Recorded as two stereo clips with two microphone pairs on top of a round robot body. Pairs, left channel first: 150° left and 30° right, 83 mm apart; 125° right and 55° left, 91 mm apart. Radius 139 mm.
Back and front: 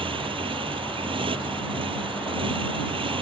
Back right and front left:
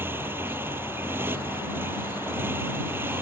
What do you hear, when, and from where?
0.0 s a motorcycle: 15° right